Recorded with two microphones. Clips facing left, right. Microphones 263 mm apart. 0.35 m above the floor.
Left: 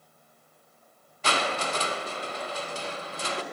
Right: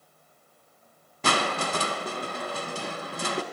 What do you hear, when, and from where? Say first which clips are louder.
1.2 s crushing: right 2 dB; 50° right (ahead or behind), 0.6 m